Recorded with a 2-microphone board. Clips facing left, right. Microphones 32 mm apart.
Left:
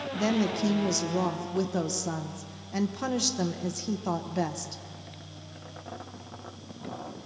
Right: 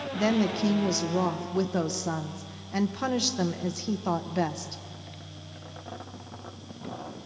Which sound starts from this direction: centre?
A woman speaking, at 0.1 s.